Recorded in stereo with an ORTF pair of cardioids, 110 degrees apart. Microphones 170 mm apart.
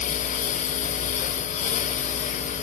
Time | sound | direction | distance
0.0 | a lawn mower | 50° left | ?